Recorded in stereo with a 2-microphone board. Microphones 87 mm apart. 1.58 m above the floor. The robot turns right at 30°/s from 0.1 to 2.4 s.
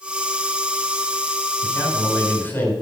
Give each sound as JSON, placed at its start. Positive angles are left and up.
{"t": 1.6, "sound": "a man speaking", "side_deg": 45, "distance_m": 5.0}